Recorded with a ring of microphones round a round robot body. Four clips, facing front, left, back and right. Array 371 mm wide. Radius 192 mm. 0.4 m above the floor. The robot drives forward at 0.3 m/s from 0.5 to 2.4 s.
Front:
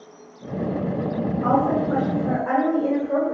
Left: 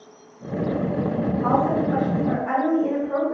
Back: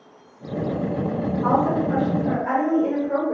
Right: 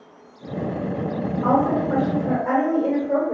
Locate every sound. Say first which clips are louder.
1.4 s a woman speaking: right 2 dB, even; 95° right, 1.9 m; by 3.3 s 105° right, 1.9 m